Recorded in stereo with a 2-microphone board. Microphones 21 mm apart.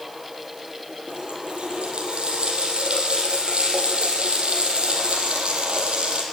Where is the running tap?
60° right (ahead or behind), 5 m.